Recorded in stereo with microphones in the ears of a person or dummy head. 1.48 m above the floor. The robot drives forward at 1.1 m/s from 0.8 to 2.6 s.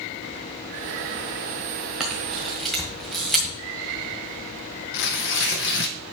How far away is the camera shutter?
About 1.3 m.